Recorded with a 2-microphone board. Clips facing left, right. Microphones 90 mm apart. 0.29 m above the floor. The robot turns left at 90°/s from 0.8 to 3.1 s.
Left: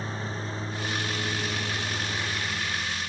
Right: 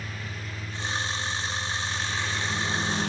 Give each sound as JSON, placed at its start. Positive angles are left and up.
{"t": 0.0, "sound": "a lawn mower", "azimuth_deg": 150}